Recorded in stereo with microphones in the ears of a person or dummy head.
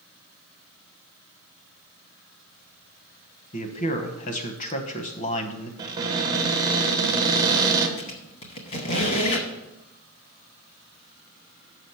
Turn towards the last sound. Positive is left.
turn(degrees=40)  # may be behind; listen again after turning